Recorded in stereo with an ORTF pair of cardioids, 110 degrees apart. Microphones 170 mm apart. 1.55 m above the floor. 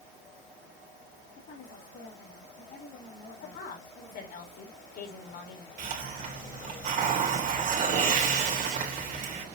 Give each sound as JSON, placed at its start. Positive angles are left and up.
{"t": 1.4, "sound": "a woman speaking", "azimuth_deg": 50, "distance_m": 4.0}
{"t": 3.4, "sound": "a woman speaking", "azimuth_deg": 60, "distance_m": 5.0}
{"t": 5.8, "sound": "a hiss", "azimuth_deg": -55, "distance_m": 3.0}